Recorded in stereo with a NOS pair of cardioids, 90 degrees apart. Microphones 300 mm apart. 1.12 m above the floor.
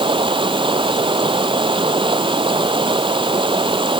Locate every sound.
0.0 s running water: 15° right